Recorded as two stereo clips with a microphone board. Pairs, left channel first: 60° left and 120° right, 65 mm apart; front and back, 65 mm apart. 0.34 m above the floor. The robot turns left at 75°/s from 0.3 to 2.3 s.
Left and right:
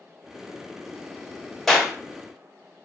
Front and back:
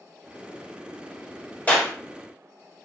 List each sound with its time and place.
1.7 s a clap: 25° right, 1.1 m; by 1.9 s 45° right, 1.1 m